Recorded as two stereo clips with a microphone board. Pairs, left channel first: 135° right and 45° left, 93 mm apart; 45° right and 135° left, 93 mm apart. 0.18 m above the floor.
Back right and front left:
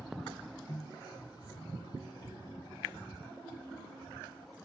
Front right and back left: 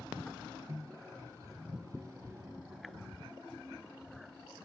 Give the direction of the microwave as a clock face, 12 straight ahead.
6 o'clock.